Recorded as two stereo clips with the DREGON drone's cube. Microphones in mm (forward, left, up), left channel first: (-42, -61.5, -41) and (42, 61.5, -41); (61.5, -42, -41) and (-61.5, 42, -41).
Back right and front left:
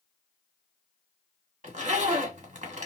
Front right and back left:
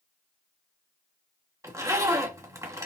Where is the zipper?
80° left, 1.5 m.